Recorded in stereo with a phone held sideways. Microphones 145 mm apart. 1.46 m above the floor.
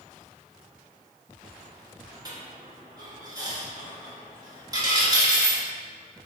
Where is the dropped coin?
25° right (ahead or behind), 0.9 m.